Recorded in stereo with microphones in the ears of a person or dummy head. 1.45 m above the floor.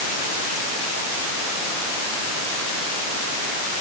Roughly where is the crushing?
No crushing in this recording.